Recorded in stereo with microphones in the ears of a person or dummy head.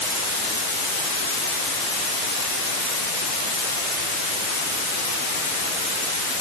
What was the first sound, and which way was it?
Only background noise.